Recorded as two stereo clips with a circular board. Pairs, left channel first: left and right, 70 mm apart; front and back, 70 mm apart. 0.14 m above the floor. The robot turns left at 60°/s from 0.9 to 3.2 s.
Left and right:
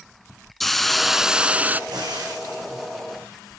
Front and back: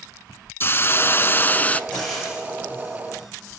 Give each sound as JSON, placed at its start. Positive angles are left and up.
{"t": 0.6, "sound": "a hiss", "azimuth_deg": 0, "distance_m": 0.6}
{"t": 1.9, "sound": "frying", "azimuth_deg": -75, "distance_m": 9.0}